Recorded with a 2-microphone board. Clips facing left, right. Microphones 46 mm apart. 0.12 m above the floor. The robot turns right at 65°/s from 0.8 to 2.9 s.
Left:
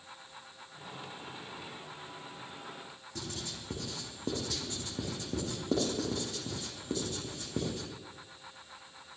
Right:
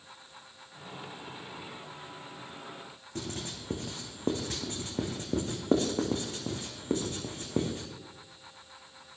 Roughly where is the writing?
Right.